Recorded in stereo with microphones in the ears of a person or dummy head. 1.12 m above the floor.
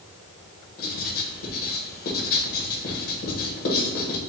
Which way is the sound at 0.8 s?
55° left (ahead or behind).